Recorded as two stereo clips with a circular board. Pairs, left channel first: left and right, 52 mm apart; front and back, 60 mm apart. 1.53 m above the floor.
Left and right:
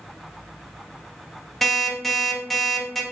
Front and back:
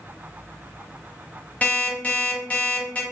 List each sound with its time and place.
1.6 s an alarm clock: 10° left, 0.6 m